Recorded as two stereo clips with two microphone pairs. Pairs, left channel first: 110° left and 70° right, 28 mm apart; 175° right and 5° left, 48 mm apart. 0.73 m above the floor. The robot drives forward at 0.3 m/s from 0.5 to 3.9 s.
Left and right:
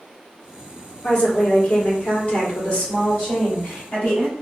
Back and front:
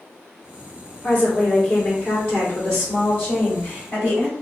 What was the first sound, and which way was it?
A woman speaking, 135° left.